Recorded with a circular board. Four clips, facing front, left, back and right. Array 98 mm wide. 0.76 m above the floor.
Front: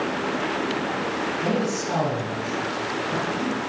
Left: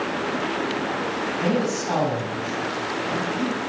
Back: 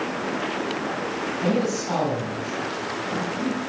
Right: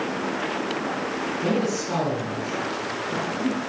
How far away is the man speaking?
About 5 m.